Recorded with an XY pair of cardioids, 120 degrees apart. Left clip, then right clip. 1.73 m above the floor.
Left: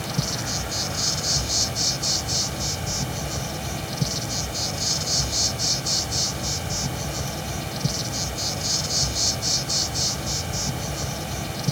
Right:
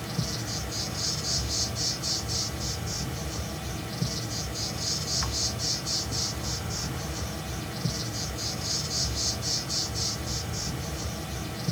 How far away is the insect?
About 0.8 m.